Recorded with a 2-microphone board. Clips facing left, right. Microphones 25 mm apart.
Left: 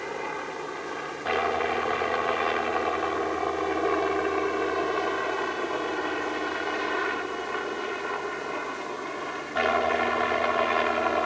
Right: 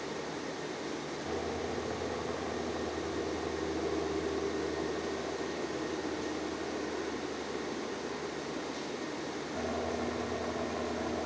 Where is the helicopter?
65° left (ahead or behind).